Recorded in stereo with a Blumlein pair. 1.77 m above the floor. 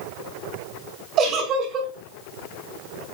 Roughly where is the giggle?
Ahead right.